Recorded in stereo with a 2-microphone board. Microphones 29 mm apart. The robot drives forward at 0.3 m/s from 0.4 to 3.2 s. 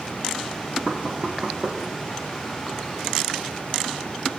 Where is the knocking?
45° right (ahead or behind), 4 m.